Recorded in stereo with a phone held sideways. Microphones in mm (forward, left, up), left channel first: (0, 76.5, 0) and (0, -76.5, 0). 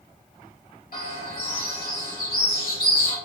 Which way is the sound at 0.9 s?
75° left (ahead or behind).